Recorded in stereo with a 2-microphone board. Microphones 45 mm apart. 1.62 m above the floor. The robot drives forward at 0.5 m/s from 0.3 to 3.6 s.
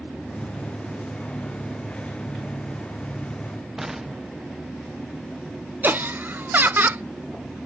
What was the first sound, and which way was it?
An explosion, 10° right (ahead or behind).